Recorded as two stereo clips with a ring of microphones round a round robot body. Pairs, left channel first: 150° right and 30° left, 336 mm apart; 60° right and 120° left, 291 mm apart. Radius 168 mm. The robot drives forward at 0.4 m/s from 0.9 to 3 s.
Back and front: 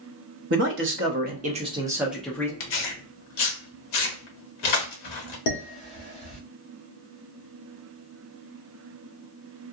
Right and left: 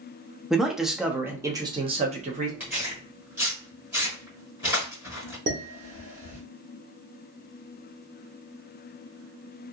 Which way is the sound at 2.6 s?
155° right.